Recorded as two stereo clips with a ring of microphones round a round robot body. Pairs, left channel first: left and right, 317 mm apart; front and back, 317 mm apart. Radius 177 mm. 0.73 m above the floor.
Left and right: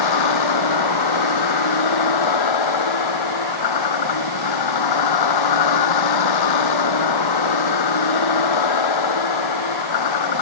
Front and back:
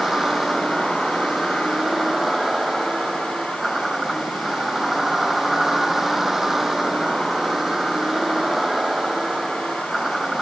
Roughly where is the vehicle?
Left.